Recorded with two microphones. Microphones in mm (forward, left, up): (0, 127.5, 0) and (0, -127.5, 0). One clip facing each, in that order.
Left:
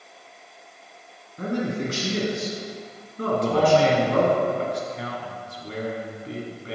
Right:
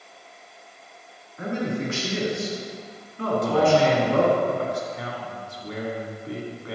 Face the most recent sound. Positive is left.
turn(degrees=30)  # may be behind; listen again after turning